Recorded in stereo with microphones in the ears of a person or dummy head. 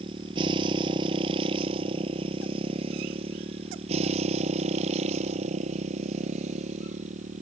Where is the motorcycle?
30° right (ahead or behind); by 7.4 s 45° right (ahead or behind).